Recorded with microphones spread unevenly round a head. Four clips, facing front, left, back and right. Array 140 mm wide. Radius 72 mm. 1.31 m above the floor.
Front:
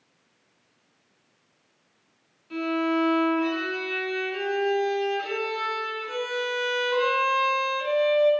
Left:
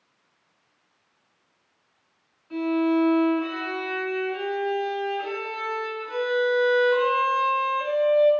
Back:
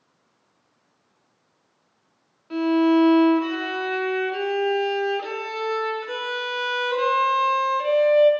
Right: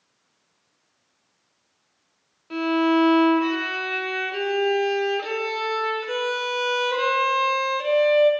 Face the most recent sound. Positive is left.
turn(degrees=-100)